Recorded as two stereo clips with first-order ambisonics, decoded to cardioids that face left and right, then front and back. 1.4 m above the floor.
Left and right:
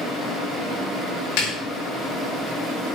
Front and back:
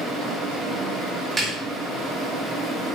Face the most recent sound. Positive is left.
turn(degrees=100)